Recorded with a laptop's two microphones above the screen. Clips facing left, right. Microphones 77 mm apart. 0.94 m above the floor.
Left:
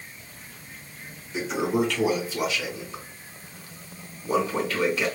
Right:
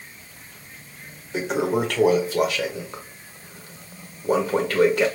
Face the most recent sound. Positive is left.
turn(degrees=-50)  # may be behind; listen again after turning